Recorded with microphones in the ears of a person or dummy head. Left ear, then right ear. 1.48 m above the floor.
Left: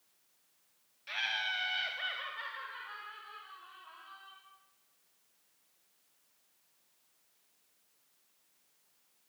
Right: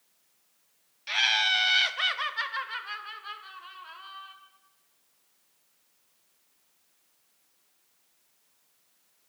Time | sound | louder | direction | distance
1.1 | laughter | right 11 dB | 25° right (ahead or behind) | 0.9 m